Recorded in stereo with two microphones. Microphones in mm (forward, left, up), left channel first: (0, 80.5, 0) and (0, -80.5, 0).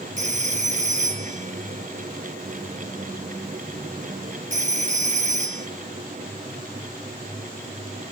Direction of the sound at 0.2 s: 50° right (ahead or behind).